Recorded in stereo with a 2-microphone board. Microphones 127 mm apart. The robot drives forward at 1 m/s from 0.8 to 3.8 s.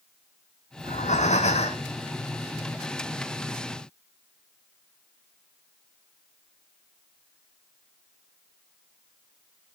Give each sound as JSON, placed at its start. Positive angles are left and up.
{"t": 0.8, "sound": "breathing", "side_deg": 80, "distance_m": 1.6}